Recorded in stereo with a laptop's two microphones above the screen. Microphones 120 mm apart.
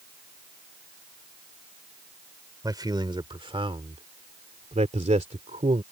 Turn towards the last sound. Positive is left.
turn(degrees=-70)  # may be behind; listen again after turning